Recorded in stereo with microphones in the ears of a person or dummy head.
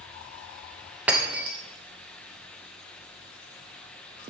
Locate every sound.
1.1 s breaking glass: 10° right (ahead or behind), 1.0 m